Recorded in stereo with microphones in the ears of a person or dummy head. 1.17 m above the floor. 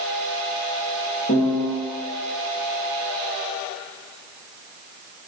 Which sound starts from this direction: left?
A piano, at 1.3 s.